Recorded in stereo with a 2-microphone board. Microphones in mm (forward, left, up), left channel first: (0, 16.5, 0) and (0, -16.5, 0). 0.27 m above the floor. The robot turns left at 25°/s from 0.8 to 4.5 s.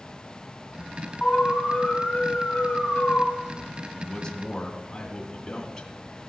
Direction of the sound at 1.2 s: 145° left.